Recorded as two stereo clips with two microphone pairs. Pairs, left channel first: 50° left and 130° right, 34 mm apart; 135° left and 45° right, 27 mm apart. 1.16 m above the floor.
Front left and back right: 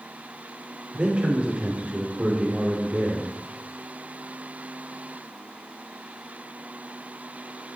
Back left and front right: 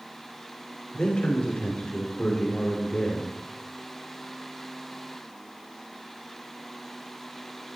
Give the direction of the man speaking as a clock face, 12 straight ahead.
6 o'clock.